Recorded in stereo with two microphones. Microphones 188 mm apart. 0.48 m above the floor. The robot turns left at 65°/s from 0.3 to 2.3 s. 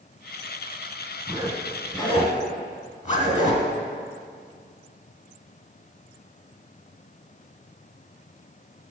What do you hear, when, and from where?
1.3 s a zipper: 25° right (ahead or behind), 1.7 m; by 3.7 s 40° left (ahead or behind), 1.7 m